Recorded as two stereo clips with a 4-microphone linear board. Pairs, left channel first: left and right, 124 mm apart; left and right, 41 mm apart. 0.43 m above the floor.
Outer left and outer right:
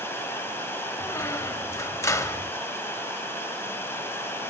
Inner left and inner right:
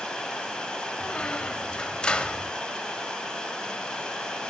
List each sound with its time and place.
0.0 s running water: 20° left (ahead or behind), 1.4 m
1.0 s a squeak: 25° left (ahead or behind), 0.5 m